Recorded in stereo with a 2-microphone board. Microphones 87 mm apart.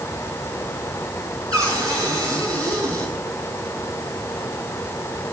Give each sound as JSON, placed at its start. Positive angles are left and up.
{"t": 1.5, "sound": "a cupboard door", "side_deg": -45, "distance_m": 4.0}